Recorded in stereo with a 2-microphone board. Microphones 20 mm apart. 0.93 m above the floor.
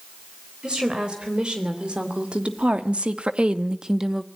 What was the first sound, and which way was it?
A woman speaking, 45° right (ahead or behind).